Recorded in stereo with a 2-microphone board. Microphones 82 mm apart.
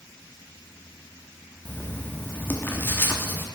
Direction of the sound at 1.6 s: 25° left (ahead or behind).